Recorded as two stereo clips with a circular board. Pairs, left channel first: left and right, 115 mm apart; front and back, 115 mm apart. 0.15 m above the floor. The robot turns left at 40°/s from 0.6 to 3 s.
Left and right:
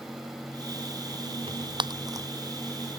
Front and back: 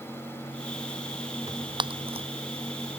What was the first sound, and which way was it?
Tearing paper, 120° right.